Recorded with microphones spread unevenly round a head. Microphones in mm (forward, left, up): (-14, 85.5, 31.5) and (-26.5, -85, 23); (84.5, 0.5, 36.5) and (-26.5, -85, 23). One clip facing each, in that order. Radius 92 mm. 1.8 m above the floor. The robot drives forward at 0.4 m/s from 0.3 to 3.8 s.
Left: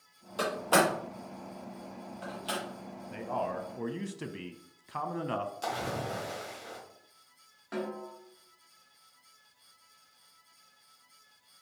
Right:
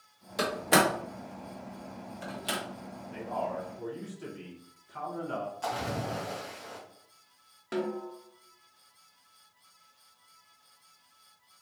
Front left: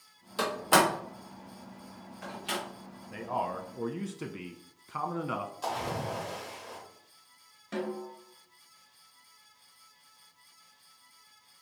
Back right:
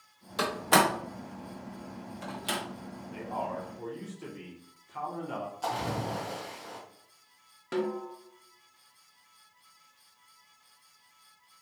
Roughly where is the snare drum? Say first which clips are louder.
Right 4 dB, back right 4 dB; behind right.